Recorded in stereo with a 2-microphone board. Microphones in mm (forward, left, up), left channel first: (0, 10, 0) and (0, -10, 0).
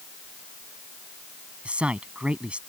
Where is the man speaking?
70° right (ahead or behind).